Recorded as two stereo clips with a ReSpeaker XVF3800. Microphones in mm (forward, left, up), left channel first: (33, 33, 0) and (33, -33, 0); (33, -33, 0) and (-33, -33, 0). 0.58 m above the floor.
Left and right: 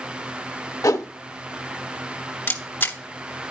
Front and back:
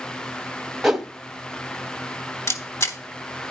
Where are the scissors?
No scissors in this recording.